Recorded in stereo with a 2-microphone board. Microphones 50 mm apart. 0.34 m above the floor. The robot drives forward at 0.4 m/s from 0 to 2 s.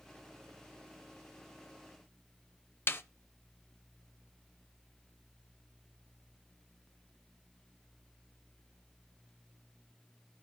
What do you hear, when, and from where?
2.9 s a snare drum: 50° left (ahead or behind), 0.6 m